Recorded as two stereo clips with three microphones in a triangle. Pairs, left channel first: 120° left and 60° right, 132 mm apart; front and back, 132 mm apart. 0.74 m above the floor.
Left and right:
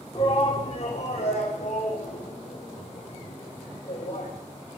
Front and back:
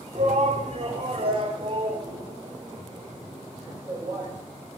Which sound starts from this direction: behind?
A shout, at 0.1 s.